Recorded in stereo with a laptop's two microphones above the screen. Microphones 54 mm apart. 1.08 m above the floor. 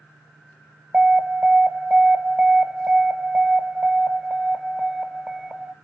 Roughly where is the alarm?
Right.